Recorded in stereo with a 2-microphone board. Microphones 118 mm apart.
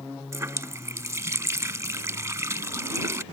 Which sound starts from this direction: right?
A running tap, at 0.3 s.